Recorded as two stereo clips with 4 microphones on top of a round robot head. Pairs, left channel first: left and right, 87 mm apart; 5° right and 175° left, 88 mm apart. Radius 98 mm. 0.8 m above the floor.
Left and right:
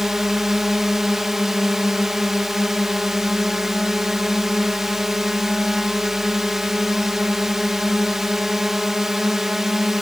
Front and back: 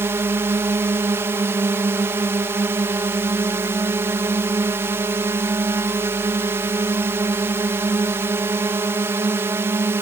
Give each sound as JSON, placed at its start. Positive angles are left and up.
{"t": 0.0, "sound": "a drone", "azimuth_deg": -170}